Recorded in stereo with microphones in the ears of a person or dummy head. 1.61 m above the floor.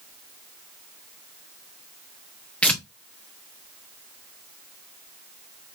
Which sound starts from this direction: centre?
Tearing paper, at 2.6 s.